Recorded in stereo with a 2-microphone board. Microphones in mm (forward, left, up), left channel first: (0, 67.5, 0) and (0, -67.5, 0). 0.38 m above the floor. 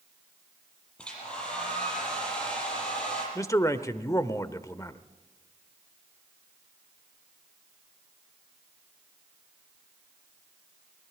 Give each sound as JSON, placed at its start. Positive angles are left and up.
{"t": 1.0, "sound": "a hair dryer", "side_deg": 5, "distance_m": 7.0}
{"t": 3.4, "sound": "a man speaking", "side_deg": 25, "distance_m": 0.9}